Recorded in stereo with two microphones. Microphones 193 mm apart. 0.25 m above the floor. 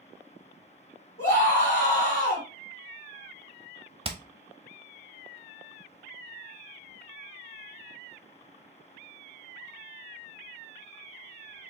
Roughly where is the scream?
Left.